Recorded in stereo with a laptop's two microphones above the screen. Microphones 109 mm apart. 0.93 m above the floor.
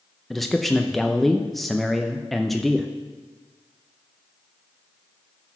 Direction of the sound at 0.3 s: Centre (ahead or behind).